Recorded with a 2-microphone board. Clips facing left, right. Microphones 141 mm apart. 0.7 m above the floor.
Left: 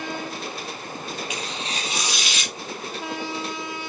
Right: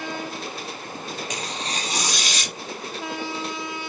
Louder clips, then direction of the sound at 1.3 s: Right 1 dB; 40° right (ahead or behind).